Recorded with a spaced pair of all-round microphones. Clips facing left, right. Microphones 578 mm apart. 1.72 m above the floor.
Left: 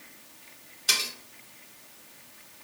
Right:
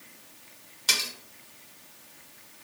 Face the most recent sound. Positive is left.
turn(degrees=-30)  # may be behind; listen again after turning